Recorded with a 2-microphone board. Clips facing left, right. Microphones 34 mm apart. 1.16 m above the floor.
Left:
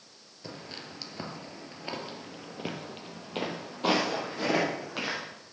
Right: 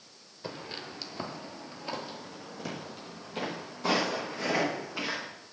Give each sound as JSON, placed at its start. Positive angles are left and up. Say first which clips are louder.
{"t": 0.4, "sound": "footsteps", "louder": "right 3 dB", "side_deg": -20, "distance_m": 1.2}